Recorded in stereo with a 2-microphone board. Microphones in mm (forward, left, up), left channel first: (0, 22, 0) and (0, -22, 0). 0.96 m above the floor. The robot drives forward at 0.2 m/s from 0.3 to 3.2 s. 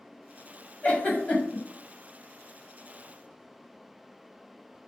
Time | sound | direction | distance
0.8 | a giggle | 35° left (ahead or behind) | 0.9 m